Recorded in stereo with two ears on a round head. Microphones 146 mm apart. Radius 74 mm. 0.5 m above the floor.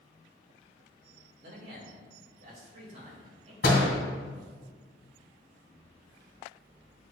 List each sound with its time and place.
1.4 s a man speaking: 65° right (ahead or behind), 2.5 m; by 3.5 s 35° right (ahead or behind), 2.5 m
3.6 s a door slam: 65° left (ahead or behind), 2.5 m